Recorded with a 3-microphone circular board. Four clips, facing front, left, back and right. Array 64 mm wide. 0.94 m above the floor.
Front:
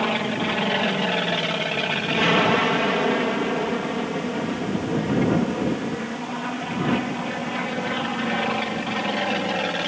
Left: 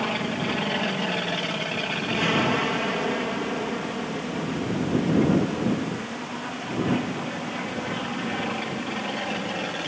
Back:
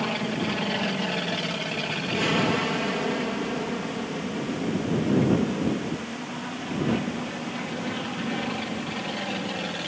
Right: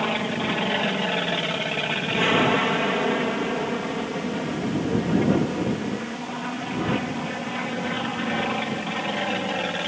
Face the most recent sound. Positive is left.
turn(degrees=-25)